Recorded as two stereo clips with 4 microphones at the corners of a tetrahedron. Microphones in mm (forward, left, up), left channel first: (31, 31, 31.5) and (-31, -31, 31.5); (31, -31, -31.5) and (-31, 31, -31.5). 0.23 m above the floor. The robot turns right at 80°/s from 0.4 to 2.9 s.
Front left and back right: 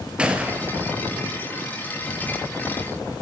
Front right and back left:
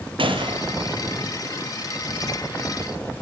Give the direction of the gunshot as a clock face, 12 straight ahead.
7 o'clock.